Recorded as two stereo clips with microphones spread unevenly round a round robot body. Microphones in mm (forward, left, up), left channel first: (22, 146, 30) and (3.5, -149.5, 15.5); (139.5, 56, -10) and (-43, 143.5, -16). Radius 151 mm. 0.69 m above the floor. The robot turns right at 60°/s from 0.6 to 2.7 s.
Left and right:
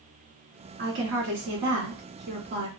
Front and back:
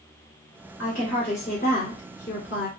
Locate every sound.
0.8 s a woman speaking: 140° right, 1.8 m; by 2.7 s 25° right, 1.8 m